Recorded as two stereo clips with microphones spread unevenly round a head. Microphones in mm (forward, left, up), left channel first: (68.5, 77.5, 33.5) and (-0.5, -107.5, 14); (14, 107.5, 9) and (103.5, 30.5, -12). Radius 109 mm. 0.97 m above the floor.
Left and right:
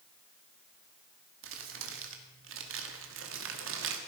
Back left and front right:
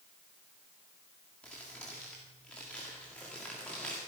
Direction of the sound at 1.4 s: 135° right.